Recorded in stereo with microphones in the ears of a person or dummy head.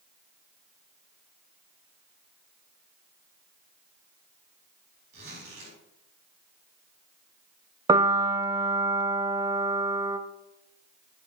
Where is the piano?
25° right (ahead or behind), 0.5 m.